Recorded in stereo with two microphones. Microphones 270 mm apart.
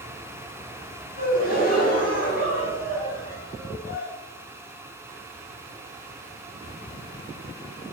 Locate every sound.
1.2 s a gasp: 35° left (ahead or behind), 1.3 m